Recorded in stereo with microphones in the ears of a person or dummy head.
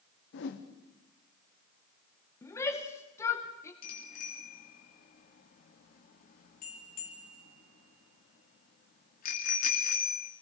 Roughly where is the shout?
Centre.